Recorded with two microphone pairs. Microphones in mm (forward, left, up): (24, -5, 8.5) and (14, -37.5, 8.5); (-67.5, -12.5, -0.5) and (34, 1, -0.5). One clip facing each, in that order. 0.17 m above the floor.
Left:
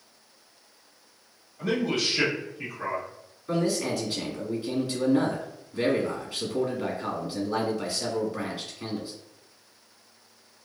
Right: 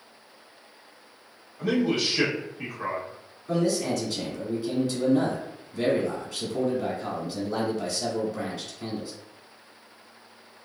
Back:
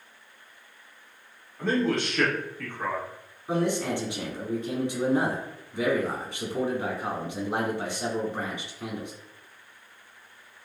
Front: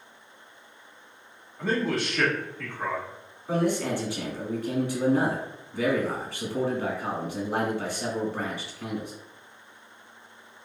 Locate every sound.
1.6 s a man speaking: 75° right, 1.0 m
3.5 s a man speaking: 135° left, 1.3 m